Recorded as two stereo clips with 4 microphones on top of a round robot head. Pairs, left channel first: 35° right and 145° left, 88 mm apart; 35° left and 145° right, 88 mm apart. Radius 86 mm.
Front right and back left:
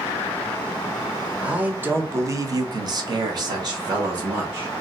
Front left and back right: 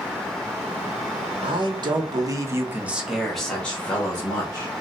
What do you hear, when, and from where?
1.4 s a man speaking: 140° right, 1.0 m; by 4.7 s 95° left, 1.4 m